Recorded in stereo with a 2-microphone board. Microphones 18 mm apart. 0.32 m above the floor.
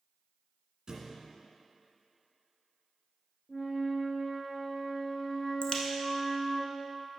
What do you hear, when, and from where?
0.9 s a thud: 35° right (ahead or behind), 1.7 m
3.5 s a flute: 30° left (ahead or behind), 1.0 m
5.6 s a crack: 60° left (ahead or behind), 1.0 m